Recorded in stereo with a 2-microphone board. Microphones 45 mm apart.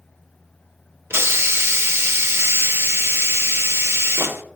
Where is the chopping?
No chopping in this recording.